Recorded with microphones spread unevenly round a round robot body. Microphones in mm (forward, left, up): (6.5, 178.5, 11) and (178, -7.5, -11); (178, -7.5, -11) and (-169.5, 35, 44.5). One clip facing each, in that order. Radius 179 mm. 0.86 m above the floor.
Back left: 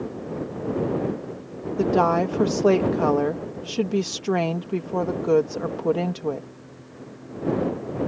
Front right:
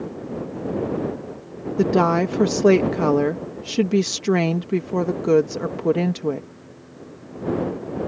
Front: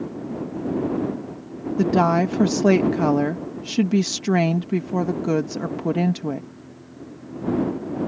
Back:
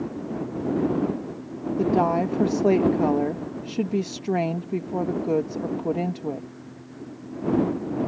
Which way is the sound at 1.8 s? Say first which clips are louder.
Front right 2 dB, front 3 dB; straight ahead.